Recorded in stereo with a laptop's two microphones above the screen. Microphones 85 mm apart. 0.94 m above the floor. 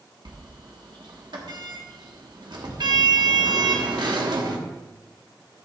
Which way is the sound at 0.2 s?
60° right (ahead or behind).